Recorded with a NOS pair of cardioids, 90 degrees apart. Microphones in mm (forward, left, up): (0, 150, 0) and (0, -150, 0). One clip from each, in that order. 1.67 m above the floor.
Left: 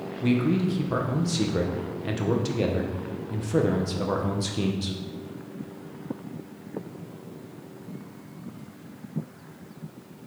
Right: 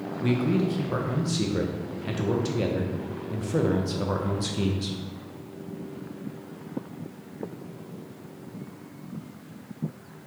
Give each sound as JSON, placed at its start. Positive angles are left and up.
{"t": 0.2, "sound": "a man speaking", "azimuth_deg": 10, "distance_m": 0.7}